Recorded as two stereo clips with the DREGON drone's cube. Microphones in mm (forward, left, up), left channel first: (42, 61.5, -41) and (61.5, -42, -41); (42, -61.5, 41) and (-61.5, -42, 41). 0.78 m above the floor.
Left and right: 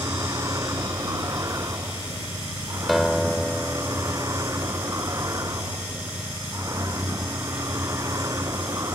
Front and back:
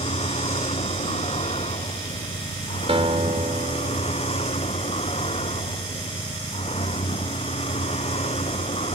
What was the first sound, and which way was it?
A vehicle, 20° right.